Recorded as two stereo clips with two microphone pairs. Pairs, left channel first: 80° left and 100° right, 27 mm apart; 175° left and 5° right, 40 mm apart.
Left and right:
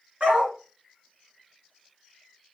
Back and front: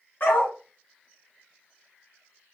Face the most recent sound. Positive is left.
turn(degrees=-145)